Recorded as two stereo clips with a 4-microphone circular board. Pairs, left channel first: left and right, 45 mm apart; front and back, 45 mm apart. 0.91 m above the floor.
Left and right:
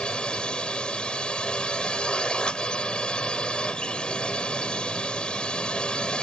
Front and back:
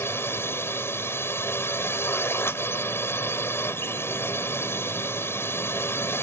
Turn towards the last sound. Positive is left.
turn(degrees=20)